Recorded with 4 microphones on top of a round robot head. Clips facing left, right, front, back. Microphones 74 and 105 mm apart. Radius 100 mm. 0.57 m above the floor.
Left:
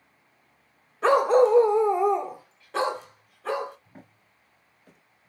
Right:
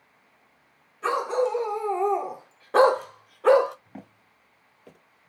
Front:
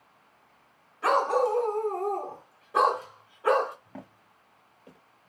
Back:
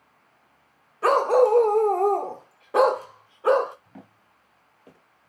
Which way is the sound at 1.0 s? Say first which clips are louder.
Left 6 dB, back 6 dB; 130° left.